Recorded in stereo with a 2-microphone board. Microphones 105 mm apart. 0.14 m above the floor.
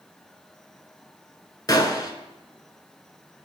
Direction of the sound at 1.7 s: 35° left (ahead or behind).